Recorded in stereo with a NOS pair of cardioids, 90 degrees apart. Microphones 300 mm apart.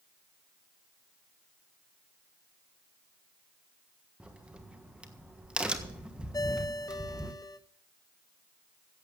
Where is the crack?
5° right, 1.4 m.